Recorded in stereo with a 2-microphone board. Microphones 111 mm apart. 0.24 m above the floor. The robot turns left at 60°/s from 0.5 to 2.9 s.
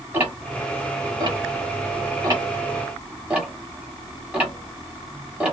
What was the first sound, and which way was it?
Ticking, 15° right (ahead or behind).